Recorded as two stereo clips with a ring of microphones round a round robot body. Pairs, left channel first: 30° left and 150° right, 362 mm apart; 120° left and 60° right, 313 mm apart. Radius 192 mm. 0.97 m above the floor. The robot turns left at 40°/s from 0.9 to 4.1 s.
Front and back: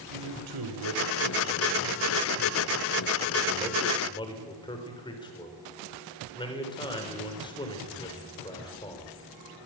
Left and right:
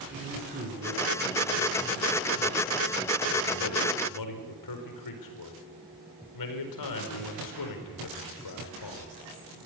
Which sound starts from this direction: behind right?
A man speaking, at 0.1 s.